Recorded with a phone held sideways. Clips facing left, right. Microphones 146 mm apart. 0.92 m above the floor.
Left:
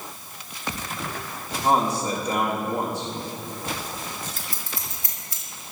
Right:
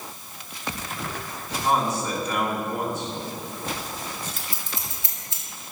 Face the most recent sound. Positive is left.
turn(degrees=-25)  # may be behind; listen again after turning